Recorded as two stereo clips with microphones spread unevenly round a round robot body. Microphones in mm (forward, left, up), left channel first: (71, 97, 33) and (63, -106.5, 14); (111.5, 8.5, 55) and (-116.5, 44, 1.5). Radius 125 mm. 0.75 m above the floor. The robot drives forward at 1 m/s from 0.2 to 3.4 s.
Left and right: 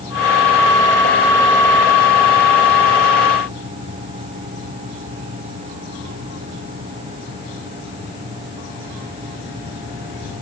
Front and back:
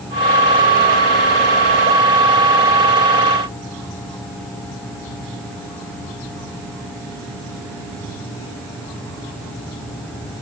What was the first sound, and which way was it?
Only background noise.